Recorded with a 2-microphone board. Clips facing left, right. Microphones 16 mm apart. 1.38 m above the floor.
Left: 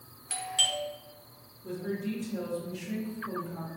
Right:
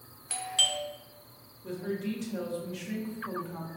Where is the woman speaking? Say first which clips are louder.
Even; 85° right, 1.1 m.